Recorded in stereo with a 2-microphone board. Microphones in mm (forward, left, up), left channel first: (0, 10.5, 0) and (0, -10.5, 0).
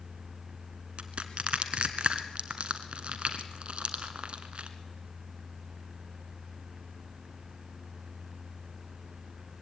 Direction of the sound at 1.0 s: 60° right (ahead or behind).